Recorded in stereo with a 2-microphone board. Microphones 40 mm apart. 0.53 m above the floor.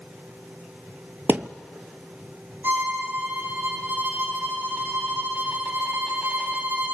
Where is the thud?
60° right (ahead or behind), 0.9 m.